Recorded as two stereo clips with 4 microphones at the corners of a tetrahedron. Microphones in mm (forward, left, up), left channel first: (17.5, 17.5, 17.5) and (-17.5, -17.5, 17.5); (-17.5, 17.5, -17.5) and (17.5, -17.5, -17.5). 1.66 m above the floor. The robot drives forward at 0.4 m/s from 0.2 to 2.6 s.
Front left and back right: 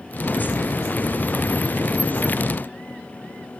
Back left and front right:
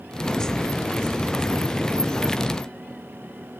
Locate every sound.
Only background noise.